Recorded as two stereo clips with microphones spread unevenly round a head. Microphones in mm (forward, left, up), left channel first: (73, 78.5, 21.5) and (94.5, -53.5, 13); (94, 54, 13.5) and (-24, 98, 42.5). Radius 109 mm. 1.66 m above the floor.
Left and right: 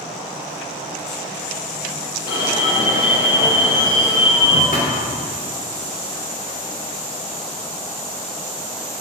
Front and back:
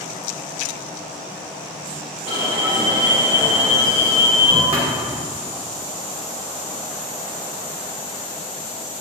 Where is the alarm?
130° left, 2.0 m.